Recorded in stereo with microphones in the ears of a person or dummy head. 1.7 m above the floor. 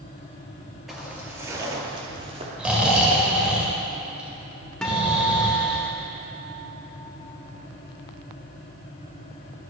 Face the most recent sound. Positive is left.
turn(degrees=5)  # may be behind; listen again after turning